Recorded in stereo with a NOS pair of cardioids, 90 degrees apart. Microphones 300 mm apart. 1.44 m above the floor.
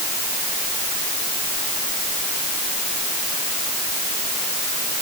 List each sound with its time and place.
Only background noise.